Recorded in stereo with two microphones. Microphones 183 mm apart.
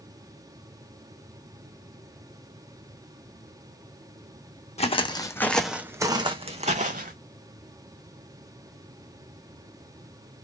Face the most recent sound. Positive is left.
turn(degrees=-50)  # may be behind; listen again after turning